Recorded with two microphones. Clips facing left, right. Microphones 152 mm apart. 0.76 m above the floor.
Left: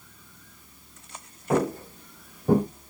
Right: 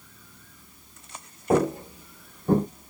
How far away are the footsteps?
About 0.9 m.